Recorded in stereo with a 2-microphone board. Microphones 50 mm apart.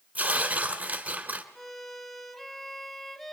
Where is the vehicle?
I don't hear a vehicle.